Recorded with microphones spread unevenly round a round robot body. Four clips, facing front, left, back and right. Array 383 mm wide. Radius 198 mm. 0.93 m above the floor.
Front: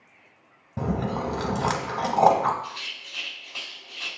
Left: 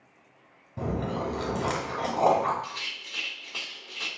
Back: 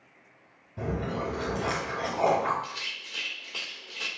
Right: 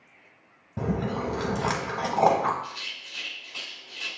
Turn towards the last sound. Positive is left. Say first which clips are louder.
# left 1 dB, front 2 dB
turn(degrees=145)